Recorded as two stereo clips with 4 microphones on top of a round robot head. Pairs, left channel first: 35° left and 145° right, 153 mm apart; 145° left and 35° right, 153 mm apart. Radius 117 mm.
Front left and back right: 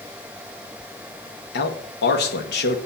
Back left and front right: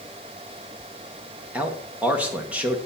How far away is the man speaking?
About 2.0 m.